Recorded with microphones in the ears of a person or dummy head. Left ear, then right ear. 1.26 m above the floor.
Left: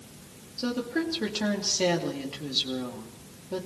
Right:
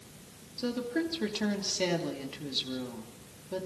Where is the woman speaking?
Centre (ahead or behind), 2.5 m.